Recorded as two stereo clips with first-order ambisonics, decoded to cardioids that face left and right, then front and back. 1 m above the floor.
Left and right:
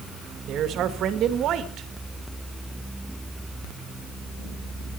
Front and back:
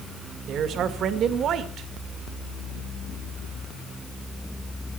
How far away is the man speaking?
About 1.7 m.